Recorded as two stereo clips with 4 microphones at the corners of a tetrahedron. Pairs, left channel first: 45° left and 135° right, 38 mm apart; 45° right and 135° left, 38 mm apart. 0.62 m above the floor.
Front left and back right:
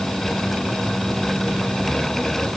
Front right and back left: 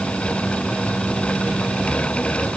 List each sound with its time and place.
Only background noise.